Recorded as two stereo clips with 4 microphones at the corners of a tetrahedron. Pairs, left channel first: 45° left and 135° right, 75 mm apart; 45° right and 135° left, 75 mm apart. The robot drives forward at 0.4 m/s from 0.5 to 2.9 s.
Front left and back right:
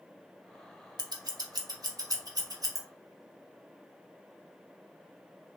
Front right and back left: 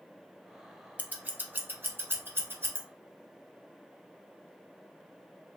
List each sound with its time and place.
1.0 s scissors: 155° right, 0.6 m; by 2.8 s 170° right, 1.3 m